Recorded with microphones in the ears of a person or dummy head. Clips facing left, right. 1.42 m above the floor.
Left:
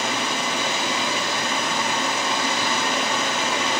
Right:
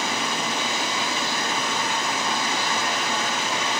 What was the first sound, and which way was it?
A fan, 55° left (ahead or behind).